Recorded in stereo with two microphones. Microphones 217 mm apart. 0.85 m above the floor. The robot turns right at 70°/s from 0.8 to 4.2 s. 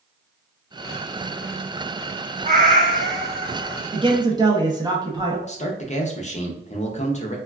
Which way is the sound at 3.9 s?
25° right (ahead or behind).